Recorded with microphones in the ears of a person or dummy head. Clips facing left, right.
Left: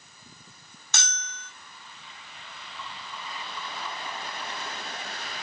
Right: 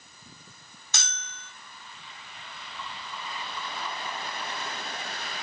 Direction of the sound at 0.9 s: 55° left (ahead or behind).